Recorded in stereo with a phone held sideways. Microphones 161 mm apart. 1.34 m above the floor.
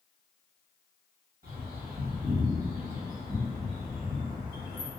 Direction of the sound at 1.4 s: 60° right (ahead or behind).